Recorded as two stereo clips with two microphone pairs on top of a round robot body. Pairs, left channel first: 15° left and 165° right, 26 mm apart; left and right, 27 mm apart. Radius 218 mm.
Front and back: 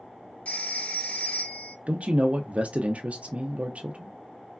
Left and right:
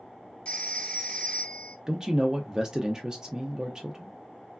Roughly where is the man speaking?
Behind.